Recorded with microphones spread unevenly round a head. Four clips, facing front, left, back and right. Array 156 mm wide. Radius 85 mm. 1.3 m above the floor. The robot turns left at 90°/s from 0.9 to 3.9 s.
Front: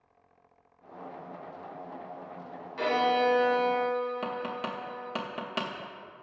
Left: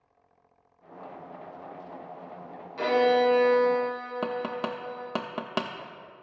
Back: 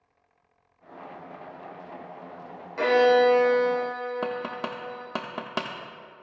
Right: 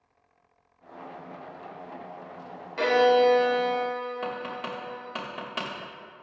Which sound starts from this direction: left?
Tapping, at 4.2 s.